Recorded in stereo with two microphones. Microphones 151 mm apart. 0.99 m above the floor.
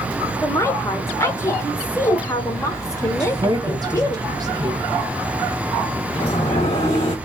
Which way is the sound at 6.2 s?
40° left (ahead or behind).